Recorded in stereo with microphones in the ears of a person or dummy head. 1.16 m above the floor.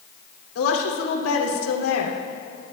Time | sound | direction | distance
0.6 | a woman speaking | 80° left | 2.5 m